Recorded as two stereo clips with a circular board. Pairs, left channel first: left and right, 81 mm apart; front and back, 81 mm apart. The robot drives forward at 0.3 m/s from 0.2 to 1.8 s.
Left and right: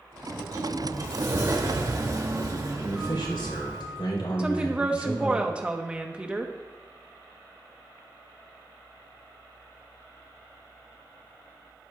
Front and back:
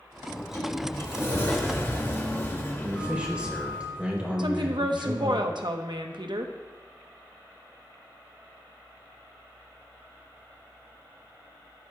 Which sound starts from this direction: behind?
A woman speaking, at 4.4 s.